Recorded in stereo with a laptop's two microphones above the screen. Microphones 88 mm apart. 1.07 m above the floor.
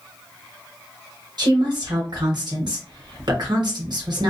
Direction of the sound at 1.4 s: 55° right (ahead or behind).